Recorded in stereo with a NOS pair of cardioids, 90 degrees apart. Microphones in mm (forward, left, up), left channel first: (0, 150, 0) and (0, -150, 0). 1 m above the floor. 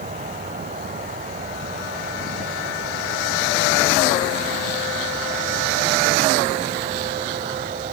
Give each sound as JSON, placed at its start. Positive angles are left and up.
{"t": 0.0, "sound": "an insect", "azimuth_deg": -25}